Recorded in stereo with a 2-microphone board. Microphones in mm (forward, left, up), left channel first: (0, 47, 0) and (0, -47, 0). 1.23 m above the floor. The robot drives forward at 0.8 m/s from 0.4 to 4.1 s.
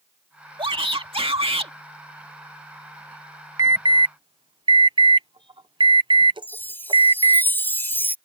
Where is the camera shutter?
I don't hear a camera shutter.